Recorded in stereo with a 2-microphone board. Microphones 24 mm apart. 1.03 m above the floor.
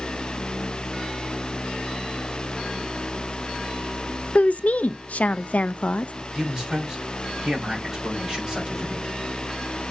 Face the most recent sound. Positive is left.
turn(degrees=-20)  # may be behind; listen again after turning